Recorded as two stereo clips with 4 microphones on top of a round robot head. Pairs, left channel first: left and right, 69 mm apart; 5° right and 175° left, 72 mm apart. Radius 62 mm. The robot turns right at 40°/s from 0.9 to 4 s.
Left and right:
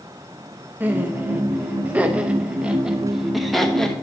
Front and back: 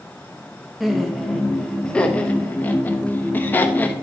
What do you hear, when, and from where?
0.8 s laughter: 100° right, 0.8 m; by 3.9 s 20° left, 0.8 m